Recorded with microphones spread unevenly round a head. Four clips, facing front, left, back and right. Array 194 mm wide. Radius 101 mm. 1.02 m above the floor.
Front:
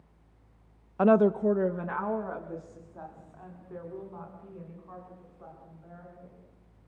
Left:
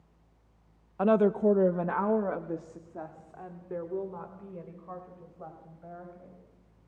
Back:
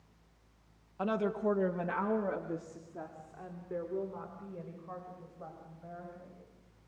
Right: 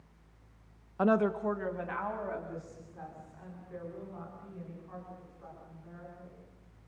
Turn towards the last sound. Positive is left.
turn(degrees=115)